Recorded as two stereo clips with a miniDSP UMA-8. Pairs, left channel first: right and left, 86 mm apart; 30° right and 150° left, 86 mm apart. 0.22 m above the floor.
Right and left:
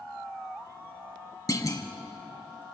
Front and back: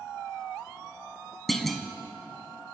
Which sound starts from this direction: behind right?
A clunk, at 1.5 s.